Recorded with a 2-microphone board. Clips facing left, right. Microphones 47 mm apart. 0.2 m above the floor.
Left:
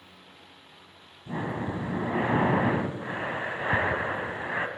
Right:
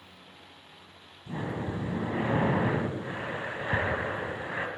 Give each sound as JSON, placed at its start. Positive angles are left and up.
{"t": 1.3, "sound": "breathing", "side_deg": 30, "distance_m": 0.9}